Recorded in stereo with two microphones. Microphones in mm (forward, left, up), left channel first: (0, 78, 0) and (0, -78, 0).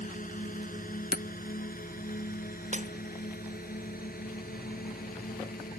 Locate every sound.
0.0 s a drone: 60° left (ahead or behind); by 5.8 s 75° left (ahead or behind)
1.1 s hammering: 80° left
2.7 s breaking glass: 50° right (ahead or behind)